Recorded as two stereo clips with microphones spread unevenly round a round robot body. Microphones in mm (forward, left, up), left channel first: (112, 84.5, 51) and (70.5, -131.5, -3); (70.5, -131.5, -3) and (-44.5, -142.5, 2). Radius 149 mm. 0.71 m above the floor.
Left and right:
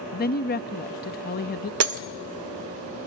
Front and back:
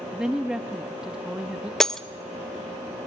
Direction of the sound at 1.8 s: 80° right.